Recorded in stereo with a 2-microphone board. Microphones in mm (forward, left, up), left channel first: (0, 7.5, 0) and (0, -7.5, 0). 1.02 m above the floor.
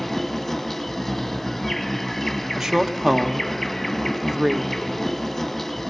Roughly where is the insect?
Centre.